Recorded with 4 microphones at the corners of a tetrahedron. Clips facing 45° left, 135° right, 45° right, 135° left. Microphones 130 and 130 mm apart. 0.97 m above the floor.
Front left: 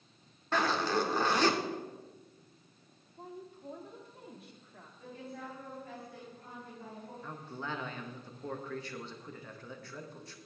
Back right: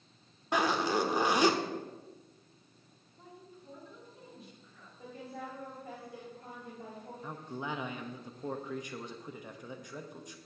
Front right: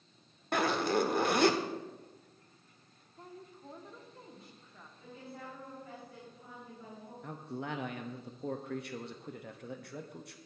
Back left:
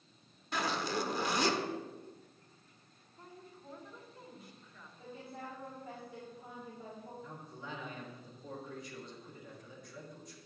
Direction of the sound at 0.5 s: 60° right.